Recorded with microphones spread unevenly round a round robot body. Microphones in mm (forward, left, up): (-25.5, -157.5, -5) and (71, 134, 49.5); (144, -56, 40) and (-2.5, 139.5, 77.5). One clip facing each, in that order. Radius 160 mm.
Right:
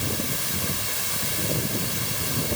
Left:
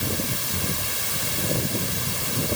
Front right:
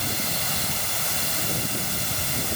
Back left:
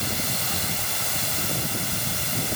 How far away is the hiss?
I don't hear a hiss.